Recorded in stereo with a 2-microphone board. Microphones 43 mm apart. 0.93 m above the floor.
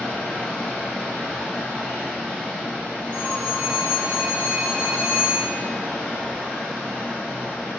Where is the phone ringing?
30° left (ahead or behind), 0.7 m.